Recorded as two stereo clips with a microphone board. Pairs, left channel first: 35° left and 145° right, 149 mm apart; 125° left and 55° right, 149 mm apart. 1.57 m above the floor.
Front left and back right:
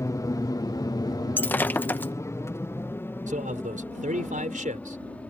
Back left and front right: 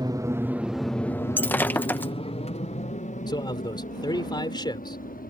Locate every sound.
0.0 s an aircraft: 20° right; by 5.3 s 115° left
1.4 s breaking glass: 80° left
3.3 s a man speaking: 175° right